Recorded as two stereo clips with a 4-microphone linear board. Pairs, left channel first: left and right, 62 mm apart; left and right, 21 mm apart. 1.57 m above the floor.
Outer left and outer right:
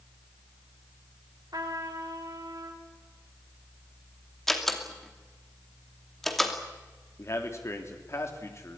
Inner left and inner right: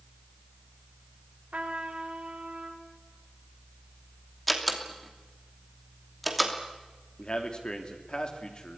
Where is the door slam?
5° left (ahead or behind), 2.5 m.